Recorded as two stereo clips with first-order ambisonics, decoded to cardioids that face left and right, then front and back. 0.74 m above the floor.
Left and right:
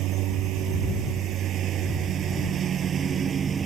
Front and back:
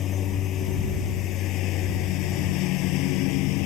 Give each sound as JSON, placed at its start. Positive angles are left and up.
{"t": 0.0, "sound": "a lawn mower", "azimuth_deg": -55}